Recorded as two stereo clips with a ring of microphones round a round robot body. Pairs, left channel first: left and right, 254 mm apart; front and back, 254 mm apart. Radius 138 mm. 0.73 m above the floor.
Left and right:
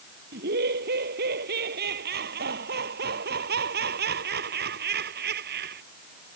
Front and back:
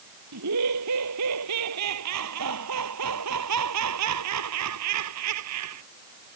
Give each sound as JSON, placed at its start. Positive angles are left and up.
{"t": 0.3, "sound": "laughter", "azimuth_deg": -145}